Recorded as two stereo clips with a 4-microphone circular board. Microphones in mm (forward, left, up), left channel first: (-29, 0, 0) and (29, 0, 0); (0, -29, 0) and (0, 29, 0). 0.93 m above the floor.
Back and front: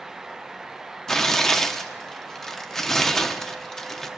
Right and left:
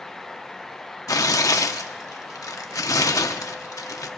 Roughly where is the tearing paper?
Right.